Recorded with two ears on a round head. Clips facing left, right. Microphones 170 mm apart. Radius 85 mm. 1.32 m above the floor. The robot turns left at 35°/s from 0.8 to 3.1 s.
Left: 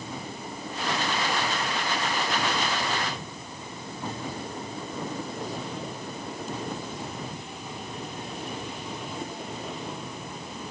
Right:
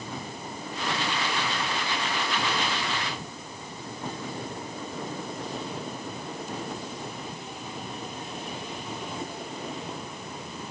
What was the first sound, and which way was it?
Only background noise.